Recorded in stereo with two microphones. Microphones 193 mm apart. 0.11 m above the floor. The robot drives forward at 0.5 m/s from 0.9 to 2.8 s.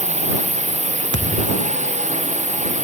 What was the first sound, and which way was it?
A drone, 35° right (ahead or behind).